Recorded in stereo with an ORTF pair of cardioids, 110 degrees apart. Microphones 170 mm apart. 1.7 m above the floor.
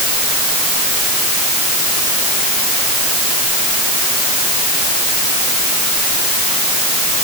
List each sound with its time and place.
Only background noise.